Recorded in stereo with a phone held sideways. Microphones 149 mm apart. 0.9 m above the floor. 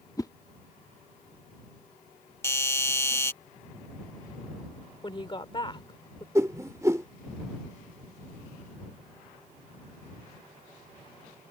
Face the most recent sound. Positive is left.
turn(degrees=-20)  # may be behind; listen again after turning